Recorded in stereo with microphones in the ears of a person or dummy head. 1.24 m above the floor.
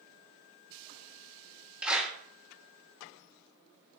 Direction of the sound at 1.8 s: 5° right (ahead or behind).